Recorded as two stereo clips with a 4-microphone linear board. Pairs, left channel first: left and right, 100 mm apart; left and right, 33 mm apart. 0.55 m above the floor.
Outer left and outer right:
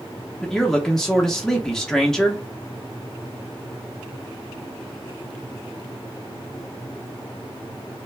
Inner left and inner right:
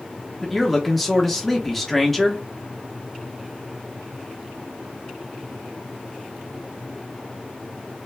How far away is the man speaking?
About 0.8 m.